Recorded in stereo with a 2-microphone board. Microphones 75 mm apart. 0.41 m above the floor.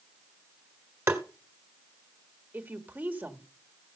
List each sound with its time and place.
1.1 s tapping: 35° right (ahead or behind), 1.2 m
2.5 s a woman speaking: 25° right (ahead or behind), 1.3 m